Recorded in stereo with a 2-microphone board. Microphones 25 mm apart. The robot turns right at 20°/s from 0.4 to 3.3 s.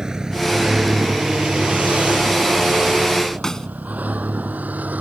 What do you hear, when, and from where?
0.0 s a vehicle: 25° right (ahead or behind); by 5.0 s 80° right
3.4 s a snare drum: 20° left (ahead or behind)